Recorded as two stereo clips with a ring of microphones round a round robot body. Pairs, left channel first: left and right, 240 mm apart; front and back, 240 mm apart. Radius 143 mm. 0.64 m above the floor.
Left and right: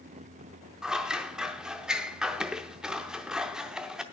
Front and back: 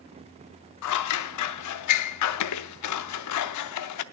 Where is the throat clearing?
No throat clearing in this recording.